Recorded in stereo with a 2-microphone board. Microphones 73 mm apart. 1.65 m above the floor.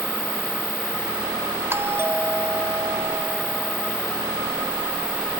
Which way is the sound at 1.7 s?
35° right (ahead or behind).